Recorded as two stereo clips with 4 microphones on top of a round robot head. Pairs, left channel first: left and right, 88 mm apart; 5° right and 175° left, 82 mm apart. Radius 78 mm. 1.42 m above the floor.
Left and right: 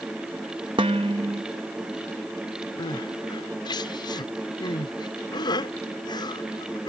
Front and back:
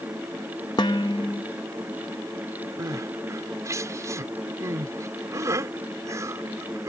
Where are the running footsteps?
No running footsteps in this recording.